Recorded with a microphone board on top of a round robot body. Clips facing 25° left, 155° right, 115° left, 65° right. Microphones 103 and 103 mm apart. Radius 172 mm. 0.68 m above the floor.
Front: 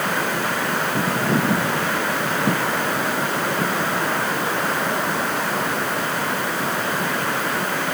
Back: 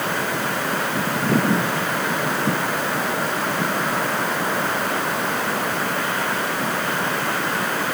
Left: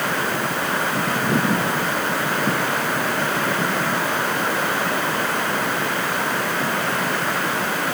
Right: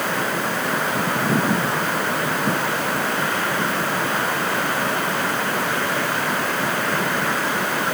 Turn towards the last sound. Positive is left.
No sound to turn to.